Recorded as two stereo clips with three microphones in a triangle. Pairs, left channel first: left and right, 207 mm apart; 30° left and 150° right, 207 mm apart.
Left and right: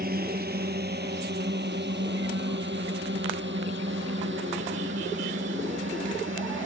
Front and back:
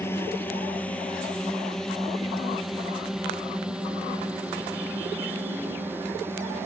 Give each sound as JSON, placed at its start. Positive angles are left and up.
{"t": 0.0, "sound": "a drone", "azimuth_deg": -50}